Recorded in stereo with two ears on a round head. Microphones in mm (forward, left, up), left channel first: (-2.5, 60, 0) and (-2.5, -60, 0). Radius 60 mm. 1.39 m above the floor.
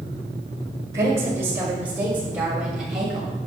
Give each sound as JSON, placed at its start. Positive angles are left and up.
{"t": 0.9, "sound": "a woman speaking", "side_deg": -20, "distance_m": 6.0}